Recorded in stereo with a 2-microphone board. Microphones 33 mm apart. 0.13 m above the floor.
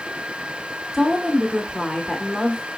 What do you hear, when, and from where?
0.9 s a woman speaking: 10° right (ahead or behind), 1.1 m